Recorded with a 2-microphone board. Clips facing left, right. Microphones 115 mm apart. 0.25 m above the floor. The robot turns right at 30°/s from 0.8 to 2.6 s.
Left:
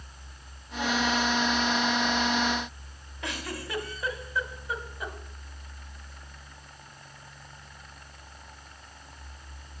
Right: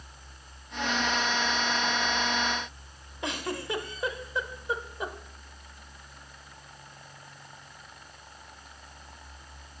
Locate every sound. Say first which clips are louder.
3.2 s a giggle: right 3 dB; 25° right (ahead or behind), 0.8 m